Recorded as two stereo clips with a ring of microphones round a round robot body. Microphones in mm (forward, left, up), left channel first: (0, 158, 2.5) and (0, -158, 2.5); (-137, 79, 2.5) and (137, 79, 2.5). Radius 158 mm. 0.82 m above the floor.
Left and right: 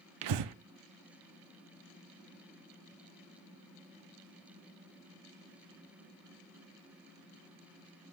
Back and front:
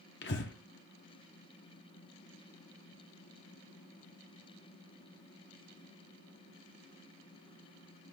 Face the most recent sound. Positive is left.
turn(degrees=-120)